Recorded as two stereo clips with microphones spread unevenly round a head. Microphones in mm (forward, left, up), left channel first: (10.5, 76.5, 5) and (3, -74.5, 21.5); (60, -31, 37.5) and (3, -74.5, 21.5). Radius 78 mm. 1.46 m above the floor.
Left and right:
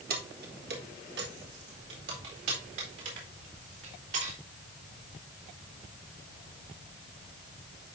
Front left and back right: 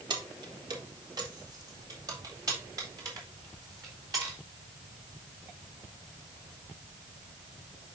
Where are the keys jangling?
120° right, 1.2 m; by 4.4 s 105° right, 3.5 m.